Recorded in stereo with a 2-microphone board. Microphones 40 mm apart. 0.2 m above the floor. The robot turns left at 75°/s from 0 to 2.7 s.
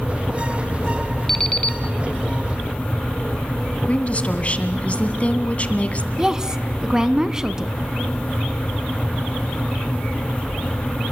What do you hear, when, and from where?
1.3 s an alarm clock: 165° left, 1.1 m; by 1.8 s 130° left, 1.1 m
3.9 s a woman speaking: 35° left (ahead or behind), 1.8 m
6.2 s a woman speaking: 15° right (ahead or behind), 1.4 m